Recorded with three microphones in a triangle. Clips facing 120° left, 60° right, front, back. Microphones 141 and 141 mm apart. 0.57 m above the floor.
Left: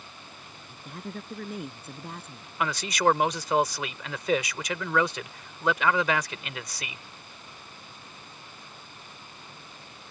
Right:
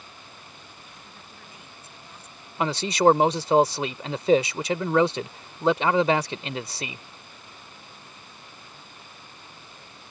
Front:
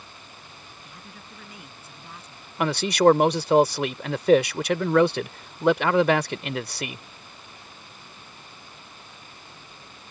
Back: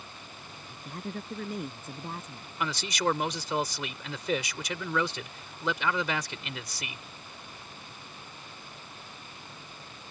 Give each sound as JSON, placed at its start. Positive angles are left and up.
{"t": 0.7, "sound": "a woman speaking", "azimuth_deg": 145}
{"t": 2.6, "sound": "a man speaking", "azimuth_deg": -5}